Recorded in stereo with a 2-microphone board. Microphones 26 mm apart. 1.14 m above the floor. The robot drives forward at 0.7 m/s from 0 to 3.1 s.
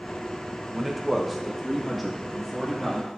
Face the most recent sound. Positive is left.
turn(degrees=0)  # may be behind; listen again after turning